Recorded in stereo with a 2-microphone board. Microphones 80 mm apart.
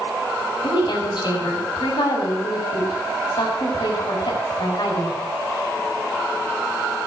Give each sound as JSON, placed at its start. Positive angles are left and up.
{"t": 0.6, "sound": "a woman speaking", "side_deg": 70, "distance_m": 6.5}